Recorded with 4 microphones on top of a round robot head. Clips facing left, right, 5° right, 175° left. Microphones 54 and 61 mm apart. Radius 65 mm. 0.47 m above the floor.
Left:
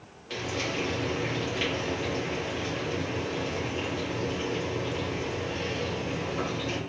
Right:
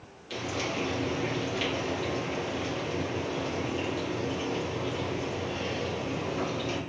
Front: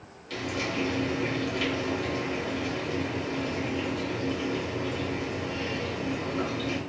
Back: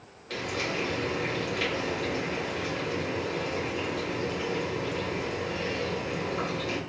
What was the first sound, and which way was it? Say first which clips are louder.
Frying: left 1 dB, even; 145° left.